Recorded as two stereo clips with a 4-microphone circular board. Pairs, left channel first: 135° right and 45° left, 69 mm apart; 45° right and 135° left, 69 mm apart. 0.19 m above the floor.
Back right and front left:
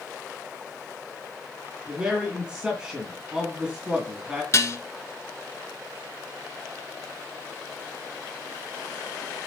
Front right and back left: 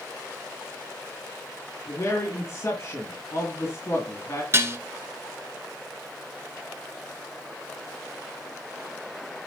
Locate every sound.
1.9 s a man speaking: 30° right, 2 m
4.5 s dishes clattering: straight behind, 1.5 m